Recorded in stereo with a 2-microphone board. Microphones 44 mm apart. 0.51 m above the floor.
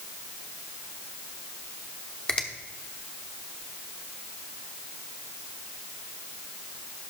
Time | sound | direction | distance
2.3 | a finger snap | 20° left (ahead or behind) | 0.8 m